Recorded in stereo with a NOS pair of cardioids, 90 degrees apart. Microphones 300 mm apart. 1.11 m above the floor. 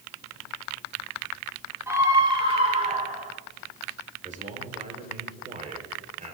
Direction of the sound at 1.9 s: 10° right.